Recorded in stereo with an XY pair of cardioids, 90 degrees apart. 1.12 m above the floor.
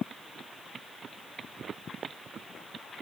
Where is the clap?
No clap in this recording.